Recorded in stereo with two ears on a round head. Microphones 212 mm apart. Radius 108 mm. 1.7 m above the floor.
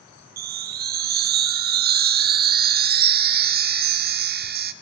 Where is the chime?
40° right (ahead or behind), 0.5 m.